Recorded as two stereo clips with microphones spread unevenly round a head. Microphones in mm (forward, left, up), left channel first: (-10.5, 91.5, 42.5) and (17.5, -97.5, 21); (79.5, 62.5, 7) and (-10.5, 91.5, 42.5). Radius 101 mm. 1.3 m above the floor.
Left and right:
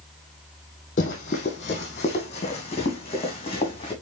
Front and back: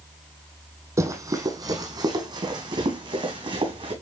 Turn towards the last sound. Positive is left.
turn(degrees=160)